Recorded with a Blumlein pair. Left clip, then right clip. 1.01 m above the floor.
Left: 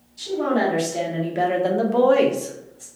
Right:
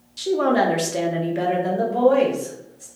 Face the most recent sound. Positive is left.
turn(degrees=65)